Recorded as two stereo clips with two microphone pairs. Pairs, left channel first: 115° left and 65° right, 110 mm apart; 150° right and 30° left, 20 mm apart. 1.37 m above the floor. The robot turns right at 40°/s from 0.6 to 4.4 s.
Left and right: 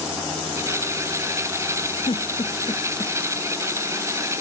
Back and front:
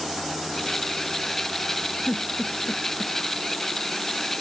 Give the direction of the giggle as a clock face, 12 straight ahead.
7 o'clock.